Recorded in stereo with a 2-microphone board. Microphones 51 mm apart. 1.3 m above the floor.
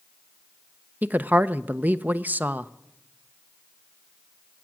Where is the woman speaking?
35° right (ahead or behind), 0.6 m.